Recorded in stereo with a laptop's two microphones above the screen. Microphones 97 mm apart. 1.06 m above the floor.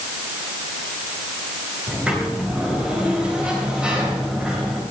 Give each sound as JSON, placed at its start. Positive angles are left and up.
{"t": 1.9, "sound": "a sliding door", "side_deg": -10, "distance_m": 3.0}